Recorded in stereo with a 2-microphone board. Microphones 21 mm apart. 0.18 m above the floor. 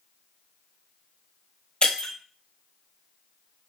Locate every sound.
1.8 s breaking glass: 50° left (ahead or behind), 0.9 m